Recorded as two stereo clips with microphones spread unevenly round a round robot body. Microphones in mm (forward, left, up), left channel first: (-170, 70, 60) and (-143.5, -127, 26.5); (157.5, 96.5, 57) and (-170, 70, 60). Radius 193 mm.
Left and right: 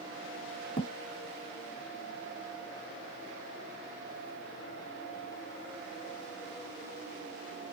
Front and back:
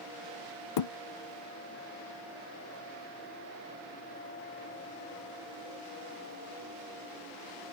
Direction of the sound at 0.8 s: 35° left.